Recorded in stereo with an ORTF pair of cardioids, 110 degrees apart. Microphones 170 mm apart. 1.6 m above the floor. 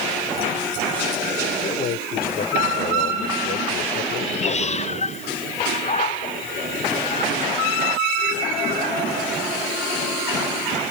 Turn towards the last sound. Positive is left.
turn(degrees=40)